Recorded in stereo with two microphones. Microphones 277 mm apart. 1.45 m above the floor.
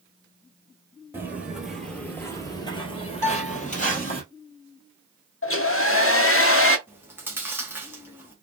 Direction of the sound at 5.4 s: 45° left (ahead or behind).